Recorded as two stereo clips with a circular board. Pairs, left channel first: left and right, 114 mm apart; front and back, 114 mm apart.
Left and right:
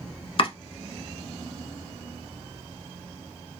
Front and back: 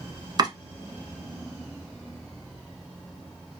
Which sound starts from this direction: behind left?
Chopping, at 0.4 s.